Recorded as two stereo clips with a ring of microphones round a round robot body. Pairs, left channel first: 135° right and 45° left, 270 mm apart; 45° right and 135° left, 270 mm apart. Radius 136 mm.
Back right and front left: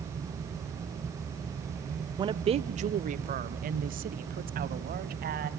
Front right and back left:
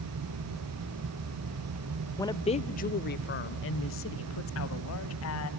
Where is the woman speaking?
10° left, 0.8 m; by 5.5 s 10° right, 2.5 m.